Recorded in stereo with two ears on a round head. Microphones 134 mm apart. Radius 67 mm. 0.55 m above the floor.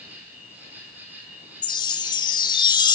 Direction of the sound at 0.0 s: 10° right (ahead or behind).